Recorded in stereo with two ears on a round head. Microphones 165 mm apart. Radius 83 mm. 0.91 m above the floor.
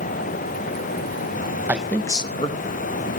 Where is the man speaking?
10° right (ahead or behind), 0.8 m; by 3.2 s 45° left (ahead or behind), 2 m.